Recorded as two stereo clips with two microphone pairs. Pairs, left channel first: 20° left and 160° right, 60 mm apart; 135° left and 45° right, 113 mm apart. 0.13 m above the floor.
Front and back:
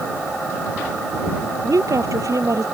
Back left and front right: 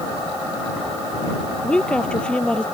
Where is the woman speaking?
145° right.